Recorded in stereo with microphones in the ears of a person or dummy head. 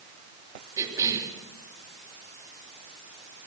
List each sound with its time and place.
0.8 s a cough: 15° right (ahead or behind), 3.5 m